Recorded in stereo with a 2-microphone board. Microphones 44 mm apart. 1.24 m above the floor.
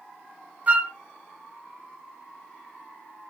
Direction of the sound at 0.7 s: 35° right (ahead or behind).